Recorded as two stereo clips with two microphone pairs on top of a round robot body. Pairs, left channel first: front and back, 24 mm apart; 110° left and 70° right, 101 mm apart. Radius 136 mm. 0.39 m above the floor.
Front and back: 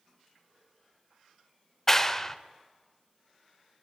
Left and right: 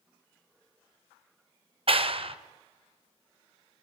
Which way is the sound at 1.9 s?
75° right.